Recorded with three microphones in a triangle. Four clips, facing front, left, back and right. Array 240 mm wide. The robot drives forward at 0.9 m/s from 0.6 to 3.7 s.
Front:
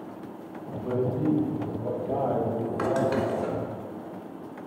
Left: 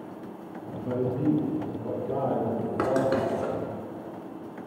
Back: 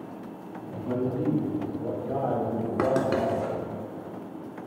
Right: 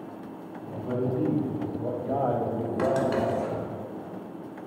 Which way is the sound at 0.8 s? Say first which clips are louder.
Left 1 dB, front 1 dB; 35° right.